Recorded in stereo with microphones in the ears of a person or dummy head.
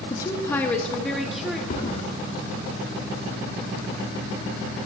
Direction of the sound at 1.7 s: 45° left (ahead or behind).